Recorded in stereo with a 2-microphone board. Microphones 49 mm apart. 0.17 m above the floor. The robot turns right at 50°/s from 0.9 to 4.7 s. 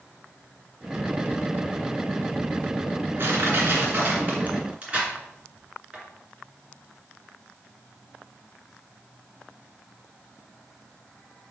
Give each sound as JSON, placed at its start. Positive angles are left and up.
{"t": 3.2, "sound": "crushing", "side_deg": -50, "distance_m": 2.0}